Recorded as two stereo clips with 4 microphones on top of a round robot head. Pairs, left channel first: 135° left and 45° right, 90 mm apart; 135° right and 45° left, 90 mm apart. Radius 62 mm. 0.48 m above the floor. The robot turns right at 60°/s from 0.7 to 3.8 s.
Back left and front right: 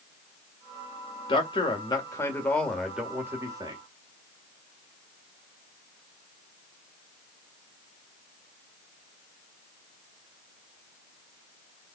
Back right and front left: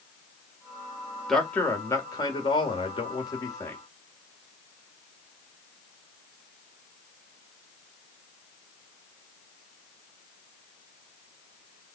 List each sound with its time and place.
1.3 s a man speaking: 135° left, 1.8 m; by 3.8 s 75° right, 1.8 m